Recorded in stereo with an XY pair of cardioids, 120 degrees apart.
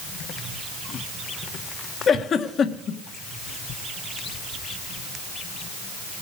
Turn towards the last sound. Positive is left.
turn(degrees=45)